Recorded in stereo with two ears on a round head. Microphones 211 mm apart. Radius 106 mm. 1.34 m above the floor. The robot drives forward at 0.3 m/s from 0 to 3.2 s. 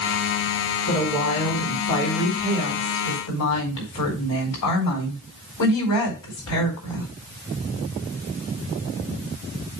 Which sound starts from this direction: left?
A woman speaking, at 0.9 s.